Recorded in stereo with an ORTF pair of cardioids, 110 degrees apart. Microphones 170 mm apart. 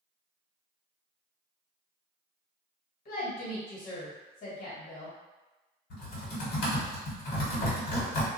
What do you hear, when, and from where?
3.0 s a woman speaking: 55° left, 1.5 m
5.9 s typing on a keyboard: 65° left, 1.5 m